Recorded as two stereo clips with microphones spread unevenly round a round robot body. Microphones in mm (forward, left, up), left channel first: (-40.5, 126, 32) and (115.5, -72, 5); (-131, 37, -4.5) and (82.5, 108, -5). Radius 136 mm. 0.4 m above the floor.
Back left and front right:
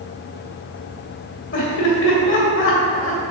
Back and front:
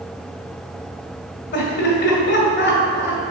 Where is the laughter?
170° left, 2 m.